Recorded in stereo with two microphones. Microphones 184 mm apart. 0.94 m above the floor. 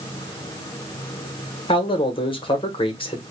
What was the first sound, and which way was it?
A man speaking, 30° left (ahead or behind).